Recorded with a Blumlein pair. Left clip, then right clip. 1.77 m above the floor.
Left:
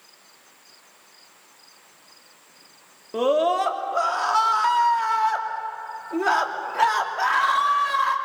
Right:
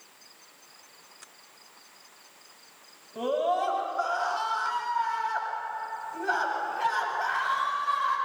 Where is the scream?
50° left, 3 m.